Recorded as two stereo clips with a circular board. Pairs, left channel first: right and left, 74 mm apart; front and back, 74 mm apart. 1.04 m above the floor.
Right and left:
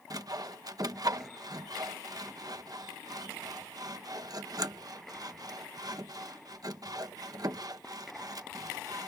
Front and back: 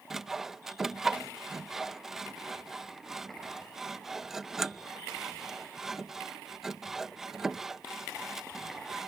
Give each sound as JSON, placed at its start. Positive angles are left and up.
{"t": 0.1, "sound": "sawing", "azimuth_deg": 95}